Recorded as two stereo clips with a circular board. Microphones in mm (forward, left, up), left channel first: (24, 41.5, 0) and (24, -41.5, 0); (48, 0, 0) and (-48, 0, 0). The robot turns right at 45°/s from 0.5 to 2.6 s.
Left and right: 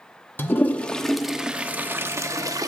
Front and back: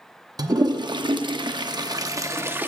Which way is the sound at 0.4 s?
150° left.